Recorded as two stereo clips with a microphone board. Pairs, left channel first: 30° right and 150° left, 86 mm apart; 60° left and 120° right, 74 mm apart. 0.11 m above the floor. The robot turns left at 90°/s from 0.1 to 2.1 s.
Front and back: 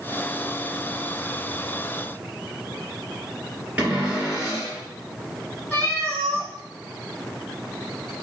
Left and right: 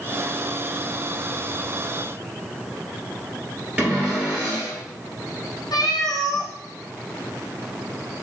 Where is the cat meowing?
40° left, 1.1 m.